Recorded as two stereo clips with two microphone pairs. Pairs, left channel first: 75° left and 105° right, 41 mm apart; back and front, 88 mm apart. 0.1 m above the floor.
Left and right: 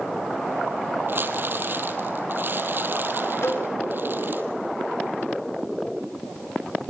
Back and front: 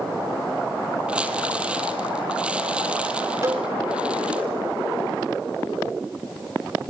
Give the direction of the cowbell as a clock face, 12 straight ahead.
10 o'clock.